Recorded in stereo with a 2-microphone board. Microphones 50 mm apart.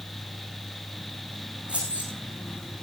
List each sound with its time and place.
1.7 s keys jangling: 25° right (ahead or behind), 7.5 m